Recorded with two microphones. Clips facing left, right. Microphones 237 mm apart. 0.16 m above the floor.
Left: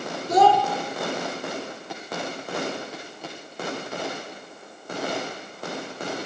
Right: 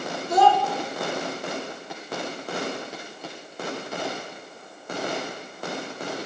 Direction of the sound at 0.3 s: 40° left (ahead or behind).